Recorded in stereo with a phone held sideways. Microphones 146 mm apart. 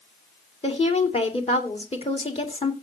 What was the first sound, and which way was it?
A woman speaking, 45° left (ahead or behind).